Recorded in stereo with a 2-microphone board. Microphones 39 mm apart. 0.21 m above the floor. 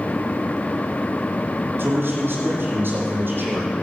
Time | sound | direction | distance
1.8 | a man speaking | 60° right (ahead or behind) | 6.5 m